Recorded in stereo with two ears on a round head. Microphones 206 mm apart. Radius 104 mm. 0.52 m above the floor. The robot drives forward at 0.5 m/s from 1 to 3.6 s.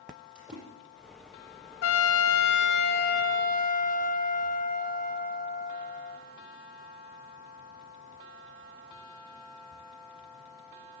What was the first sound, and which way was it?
A splash, 5° right (ahead or behind).